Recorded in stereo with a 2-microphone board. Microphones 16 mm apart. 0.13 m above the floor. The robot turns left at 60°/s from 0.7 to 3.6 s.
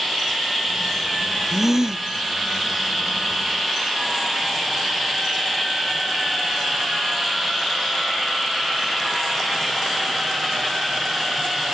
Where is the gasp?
15° right; by 2.0 s 45° right.